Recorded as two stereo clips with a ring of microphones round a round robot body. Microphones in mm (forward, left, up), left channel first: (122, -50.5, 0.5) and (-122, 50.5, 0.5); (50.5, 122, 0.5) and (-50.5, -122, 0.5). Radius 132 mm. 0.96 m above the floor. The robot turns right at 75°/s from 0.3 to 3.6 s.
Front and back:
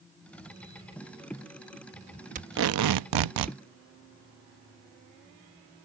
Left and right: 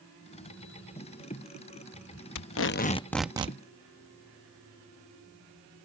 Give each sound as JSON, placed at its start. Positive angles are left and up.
{"t": 2.4, "sound": "tape being pulled", "azimuth_deg": 95}